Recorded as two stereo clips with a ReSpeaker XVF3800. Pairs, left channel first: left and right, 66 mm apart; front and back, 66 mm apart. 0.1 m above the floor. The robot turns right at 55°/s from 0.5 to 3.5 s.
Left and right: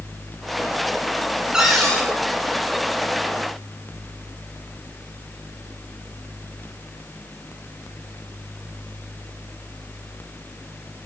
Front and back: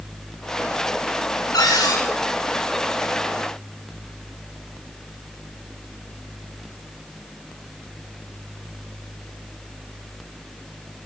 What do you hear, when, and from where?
1.5 s a cupboard door: 10° right, 8 m; by 2.0 s 15° left, 8 m